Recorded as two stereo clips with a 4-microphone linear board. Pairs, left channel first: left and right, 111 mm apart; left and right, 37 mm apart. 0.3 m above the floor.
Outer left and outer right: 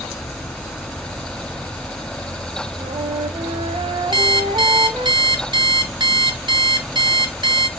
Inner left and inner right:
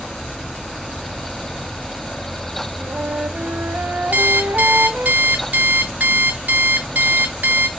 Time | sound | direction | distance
2.8 | a flute | 55° right (ahead or behind) | 0.5 m
4.1 | an alarm clock | 40° right (ahead or behind) | 0.5 m